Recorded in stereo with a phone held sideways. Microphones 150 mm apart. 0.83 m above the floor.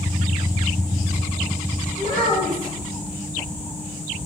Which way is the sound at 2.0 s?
70° right (ahead or behind).